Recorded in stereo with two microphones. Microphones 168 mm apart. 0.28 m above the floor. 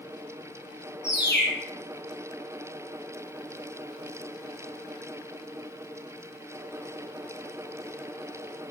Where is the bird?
75° left (ahead or behind), 8.5 m.